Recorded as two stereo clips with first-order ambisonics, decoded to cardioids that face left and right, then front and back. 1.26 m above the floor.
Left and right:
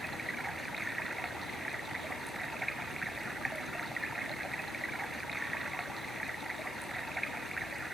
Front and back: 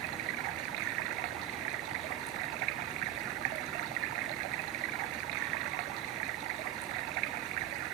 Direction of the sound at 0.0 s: 175° right.